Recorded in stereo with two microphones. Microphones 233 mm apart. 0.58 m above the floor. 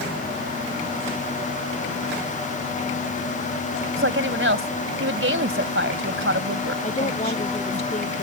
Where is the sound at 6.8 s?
30° left (ahead or behind).